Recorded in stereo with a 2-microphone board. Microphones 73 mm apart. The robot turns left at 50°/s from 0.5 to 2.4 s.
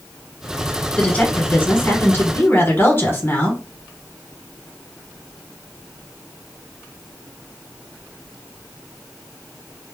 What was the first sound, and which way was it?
A woman speaking, 150° left.